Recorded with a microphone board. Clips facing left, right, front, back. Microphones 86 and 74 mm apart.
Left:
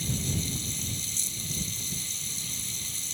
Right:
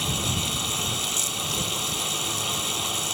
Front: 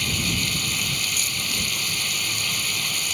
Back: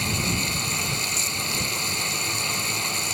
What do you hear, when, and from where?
0.0 s running water: 115° right